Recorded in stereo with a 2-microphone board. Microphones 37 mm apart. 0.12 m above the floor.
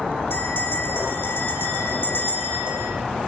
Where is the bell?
75° left (ahead or behind), 6 m.